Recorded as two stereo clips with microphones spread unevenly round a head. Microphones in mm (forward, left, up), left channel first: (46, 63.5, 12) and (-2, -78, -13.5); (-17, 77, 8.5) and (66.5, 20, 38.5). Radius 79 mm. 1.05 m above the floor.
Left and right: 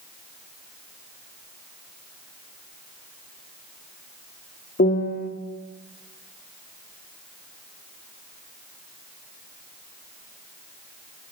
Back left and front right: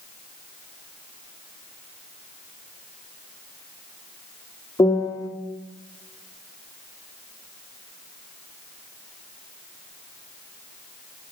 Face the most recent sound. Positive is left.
turn(degrees=80)